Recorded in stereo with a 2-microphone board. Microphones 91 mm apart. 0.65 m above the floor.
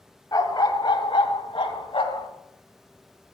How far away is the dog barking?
About 1.6 m.